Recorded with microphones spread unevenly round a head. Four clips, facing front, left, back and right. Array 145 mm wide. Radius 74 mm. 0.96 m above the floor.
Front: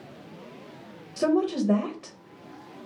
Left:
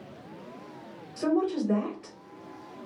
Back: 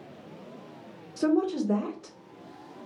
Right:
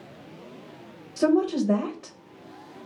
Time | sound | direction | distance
1.2 | a woman speaking | 50° right | 0.9 m